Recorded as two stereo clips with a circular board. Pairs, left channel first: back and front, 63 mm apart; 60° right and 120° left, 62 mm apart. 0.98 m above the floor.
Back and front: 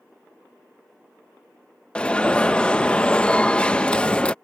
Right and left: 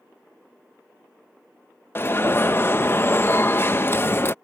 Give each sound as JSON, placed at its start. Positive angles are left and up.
{"t": 1.9, "sound": "an alarm", "azimuth_deg": -110}